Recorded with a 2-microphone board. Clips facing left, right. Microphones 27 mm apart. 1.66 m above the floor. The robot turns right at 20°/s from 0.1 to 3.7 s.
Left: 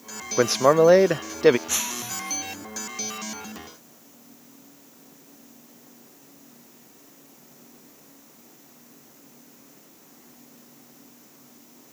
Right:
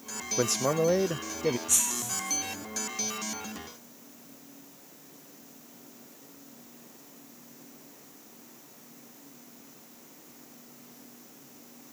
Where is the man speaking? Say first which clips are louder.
Left 10 dB; 35° left (ahead or behind); by 1.6 s 60° left (ahead or behind).